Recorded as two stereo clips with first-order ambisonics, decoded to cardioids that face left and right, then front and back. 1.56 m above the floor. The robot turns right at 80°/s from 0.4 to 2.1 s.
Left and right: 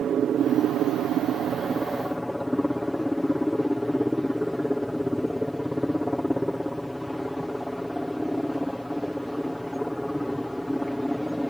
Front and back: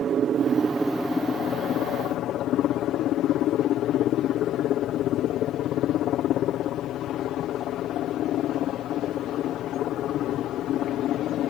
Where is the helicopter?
135° right; by 11.5 s straight ahead.